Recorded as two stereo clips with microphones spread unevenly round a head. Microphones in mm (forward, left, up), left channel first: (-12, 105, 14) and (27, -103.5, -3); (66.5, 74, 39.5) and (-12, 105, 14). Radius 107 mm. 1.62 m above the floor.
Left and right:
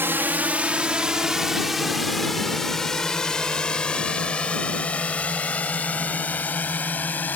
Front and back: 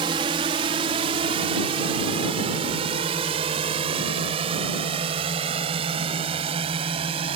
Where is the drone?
160° right; by 7.4 s 175° right.